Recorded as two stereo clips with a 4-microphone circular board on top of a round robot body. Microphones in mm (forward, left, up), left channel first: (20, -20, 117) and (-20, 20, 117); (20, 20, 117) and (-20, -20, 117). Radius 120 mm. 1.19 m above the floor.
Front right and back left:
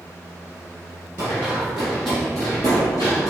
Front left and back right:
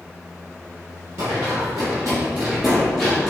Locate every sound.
1.2 s running footsteps: 175° right, 1.4 m; by 3.3 s 35° right, 1.5 m